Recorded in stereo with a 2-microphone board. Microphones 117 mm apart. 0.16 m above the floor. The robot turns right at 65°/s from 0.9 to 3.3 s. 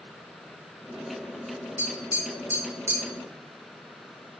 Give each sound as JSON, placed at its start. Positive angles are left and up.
{"t": 1.8, "sound": "tapping", "side_deg": -5, "distance_m": 1.1}